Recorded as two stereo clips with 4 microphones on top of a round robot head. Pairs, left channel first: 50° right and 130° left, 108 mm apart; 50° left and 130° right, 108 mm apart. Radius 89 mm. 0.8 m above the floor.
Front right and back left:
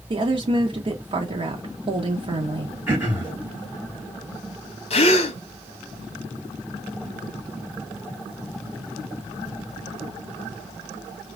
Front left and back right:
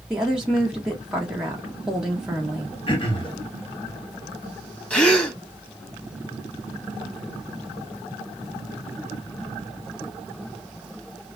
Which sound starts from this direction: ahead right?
A gasp, at 4.9 s.